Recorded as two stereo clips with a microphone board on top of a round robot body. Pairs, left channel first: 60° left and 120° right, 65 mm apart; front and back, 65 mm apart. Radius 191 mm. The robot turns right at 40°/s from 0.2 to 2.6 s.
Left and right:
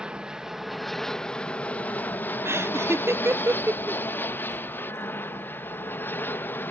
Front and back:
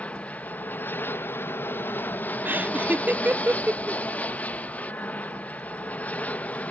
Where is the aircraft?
55° right; by 6.7 s 45° left.